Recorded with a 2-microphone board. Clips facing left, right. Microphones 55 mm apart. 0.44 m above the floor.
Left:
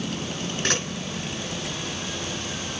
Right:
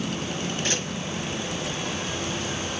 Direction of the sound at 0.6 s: 70° left (ahead or behind).